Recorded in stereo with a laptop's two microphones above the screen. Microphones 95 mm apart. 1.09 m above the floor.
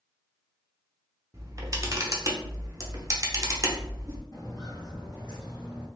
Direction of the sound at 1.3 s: 35° right (ahead or behind).